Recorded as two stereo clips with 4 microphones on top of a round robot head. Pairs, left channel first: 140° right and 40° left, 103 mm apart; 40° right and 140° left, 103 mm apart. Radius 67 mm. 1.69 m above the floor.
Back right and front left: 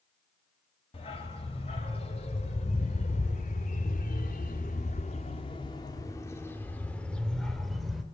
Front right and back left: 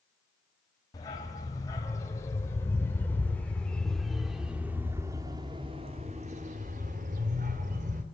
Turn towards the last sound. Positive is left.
turn(degrees=130)